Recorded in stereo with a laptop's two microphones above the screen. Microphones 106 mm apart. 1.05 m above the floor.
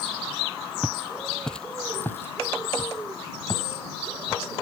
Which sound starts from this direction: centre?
Footsteps, at 0.8 s.